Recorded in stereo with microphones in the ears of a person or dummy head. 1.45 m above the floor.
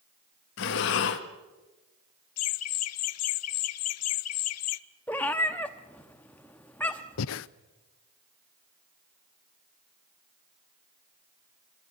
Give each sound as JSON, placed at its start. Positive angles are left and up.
{"t": 0.6, "sound": "breathing", "side_deg": 60, "distance_m": 1.4}
{"t": 2.4, "sound": "laughter", "side_deg": 75, "distance_m": 0.8}
{"t": 5.1, "sound": "a cat meowing", "side_deg": 10, "distance_m": 0.9}
{"t": 7.2, "sound": "breathing", "side_deg": 65, "distance_m": 0.5}